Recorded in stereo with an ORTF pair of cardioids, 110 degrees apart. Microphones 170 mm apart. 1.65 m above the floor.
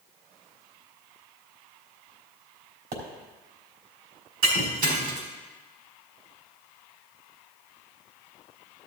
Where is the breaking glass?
65° right, 3.5 m.